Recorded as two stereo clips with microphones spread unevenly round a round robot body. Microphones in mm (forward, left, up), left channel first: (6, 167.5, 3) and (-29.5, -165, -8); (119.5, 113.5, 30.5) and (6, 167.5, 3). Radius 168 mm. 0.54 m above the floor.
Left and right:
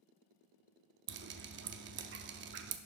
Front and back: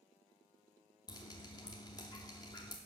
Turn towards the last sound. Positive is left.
turn(degrees=-85)